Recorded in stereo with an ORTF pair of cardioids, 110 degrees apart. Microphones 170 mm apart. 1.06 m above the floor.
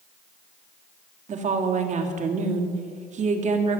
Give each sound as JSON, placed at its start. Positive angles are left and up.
{"t": 1.3, "sound": "a woman speaking", "azimuth_deg": -45, "distance_m": 1.9}